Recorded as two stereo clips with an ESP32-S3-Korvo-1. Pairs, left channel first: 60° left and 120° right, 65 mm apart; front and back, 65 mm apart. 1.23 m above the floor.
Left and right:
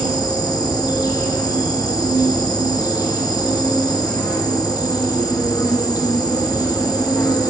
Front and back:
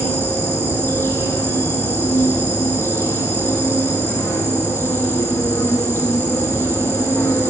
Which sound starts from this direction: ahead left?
An insect, at 0.0 s.